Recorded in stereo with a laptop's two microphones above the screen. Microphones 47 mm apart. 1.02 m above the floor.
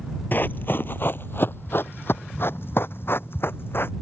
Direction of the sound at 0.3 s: 45° left (ahead or behind).